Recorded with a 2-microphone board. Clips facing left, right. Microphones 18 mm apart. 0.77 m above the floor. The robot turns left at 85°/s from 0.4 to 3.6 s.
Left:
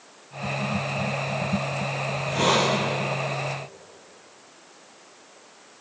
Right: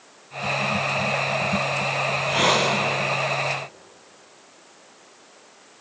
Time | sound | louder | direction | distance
2.0 | a hiss | right 2 dB | 80° right | 5.5 m